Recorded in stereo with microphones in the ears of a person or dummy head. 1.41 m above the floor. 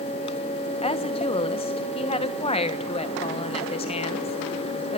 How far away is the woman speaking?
About 1.3 m.